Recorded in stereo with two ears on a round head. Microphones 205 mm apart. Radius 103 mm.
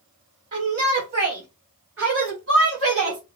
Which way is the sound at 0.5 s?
40° right (ahead or behind).